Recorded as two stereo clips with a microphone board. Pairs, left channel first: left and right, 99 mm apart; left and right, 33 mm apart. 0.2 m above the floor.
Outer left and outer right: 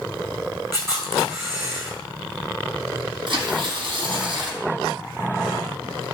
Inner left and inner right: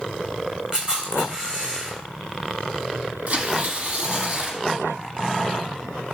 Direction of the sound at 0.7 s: 30° right (ahead or behind).